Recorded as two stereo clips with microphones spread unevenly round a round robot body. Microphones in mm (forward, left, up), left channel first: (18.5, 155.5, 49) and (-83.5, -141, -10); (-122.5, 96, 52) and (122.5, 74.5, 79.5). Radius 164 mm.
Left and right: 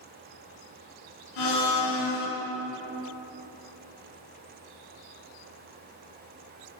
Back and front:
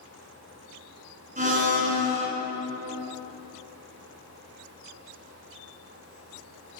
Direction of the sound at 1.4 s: 55° left.